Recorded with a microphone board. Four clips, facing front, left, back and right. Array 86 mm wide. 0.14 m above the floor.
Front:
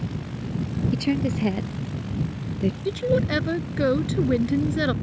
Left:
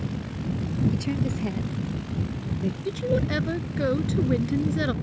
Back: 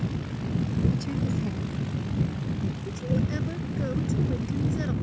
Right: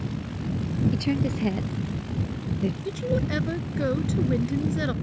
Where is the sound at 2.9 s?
10° left.